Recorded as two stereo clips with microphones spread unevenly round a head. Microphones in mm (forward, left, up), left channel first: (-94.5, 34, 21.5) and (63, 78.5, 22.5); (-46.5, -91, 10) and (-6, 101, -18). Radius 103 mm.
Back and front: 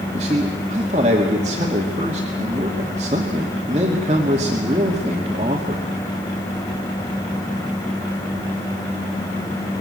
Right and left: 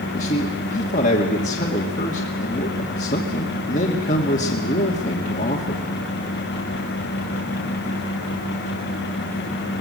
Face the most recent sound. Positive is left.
turn(degrees=-50)